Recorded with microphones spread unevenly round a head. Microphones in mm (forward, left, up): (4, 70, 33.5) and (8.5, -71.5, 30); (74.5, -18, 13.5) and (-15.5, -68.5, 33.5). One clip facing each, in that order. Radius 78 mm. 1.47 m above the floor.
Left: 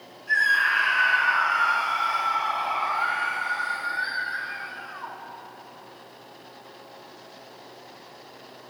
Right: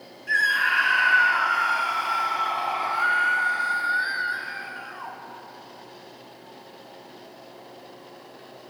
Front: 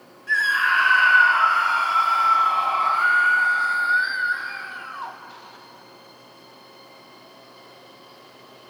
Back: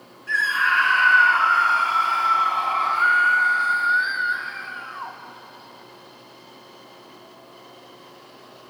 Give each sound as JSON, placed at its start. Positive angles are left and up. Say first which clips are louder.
{"t": 0.3, "sound": "a scream", "louder": "even, even", "azimuth_deg": -60, "distance_m": 4.5}